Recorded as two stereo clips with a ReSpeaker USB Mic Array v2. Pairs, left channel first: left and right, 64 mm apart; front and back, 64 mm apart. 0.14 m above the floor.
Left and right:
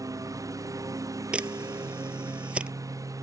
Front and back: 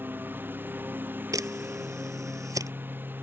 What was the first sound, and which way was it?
A lawn mower, 120° right.